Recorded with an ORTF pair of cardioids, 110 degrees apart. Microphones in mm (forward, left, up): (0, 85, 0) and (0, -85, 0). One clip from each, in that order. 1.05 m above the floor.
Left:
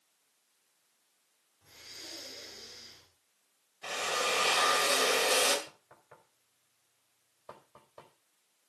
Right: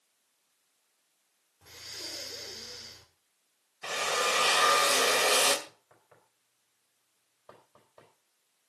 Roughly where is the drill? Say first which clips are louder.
Right 3 dB; ahead right.